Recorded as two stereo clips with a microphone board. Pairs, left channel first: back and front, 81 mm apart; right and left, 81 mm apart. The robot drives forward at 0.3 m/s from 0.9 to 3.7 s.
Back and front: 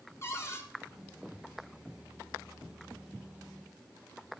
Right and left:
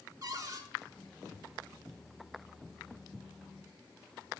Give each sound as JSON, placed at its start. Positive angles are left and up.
{"t": 0.2, "sound": "a cupboard door", "azimuth_deg": 130, "distance_m": 1.0}